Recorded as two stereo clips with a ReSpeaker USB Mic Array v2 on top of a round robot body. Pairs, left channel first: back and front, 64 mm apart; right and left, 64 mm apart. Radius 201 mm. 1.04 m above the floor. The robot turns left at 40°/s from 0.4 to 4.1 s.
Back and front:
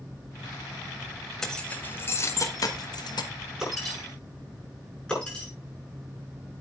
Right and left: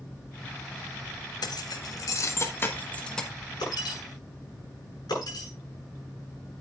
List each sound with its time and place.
1.4 s keys jangling: 100° right, 1.3 m; by 3.3 s 175° right, 1.3 m
3.6 s breaking glass: 85° right, 7.5 m; by 5.5 s 105° right, 7.5 m